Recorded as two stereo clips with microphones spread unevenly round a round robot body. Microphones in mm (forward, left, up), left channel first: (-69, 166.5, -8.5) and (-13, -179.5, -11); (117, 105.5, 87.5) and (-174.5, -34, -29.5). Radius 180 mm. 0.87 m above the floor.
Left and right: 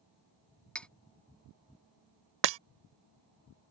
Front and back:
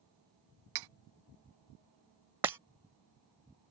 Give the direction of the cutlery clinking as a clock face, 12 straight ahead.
6 o'clock.